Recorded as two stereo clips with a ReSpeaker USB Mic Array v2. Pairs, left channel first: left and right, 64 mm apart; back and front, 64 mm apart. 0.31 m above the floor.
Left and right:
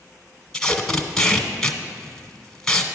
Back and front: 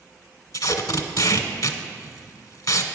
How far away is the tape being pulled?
About 0.7 m.